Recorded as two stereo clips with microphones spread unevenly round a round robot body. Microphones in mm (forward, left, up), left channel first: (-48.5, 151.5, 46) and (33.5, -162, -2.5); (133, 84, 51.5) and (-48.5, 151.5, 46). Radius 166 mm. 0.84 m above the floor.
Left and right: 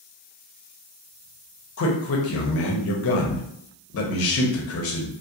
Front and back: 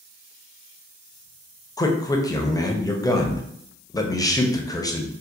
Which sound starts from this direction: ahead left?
A man speaking, at 1.8 s.